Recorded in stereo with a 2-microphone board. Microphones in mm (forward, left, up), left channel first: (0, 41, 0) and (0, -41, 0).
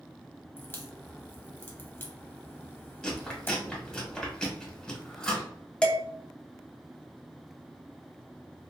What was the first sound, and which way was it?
A crack, 25° left (ahead or behind).